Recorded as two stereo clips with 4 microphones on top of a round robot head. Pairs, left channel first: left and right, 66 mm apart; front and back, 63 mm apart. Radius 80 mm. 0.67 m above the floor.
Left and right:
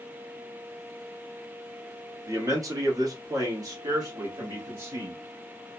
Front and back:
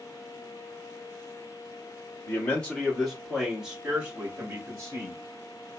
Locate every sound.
2.3 s a man speaking: 60° right, 1.3 m; by 5.2 s 135° right, 1.7 m